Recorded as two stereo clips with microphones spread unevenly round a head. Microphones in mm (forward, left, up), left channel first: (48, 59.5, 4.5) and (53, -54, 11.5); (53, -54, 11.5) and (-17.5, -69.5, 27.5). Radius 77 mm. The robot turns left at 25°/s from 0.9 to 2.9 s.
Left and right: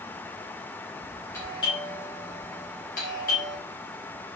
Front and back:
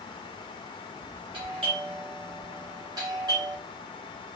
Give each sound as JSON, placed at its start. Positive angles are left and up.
{"t": 1.3, "sound": "a doorbell", "azimuth_deg": 165, "distance_m": 1.9}